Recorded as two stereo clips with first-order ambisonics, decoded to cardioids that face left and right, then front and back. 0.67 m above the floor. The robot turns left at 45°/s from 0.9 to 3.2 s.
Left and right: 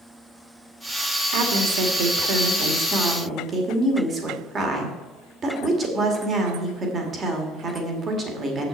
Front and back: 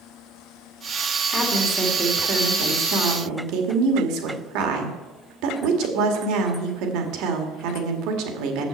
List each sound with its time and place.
1.3 s a woman speaking: 70° right, 1.9 m; by 8.7 s 155° right, 1.9 m